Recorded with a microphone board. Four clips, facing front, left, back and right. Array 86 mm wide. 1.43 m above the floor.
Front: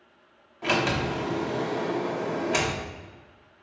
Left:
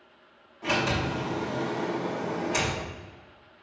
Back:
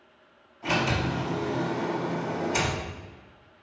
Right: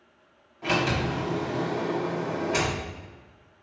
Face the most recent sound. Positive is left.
turn(degrees=-10)